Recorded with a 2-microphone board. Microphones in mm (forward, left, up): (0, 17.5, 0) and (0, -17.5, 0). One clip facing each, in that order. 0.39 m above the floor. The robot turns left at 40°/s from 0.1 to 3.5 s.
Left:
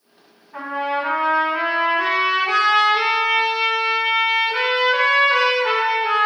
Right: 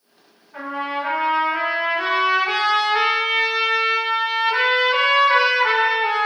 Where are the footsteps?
I don't hear footsteps.